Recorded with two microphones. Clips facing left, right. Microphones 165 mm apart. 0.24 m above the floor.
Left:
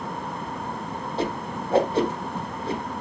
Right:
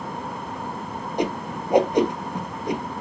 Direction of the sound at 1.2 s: 15° right (ahead or behind).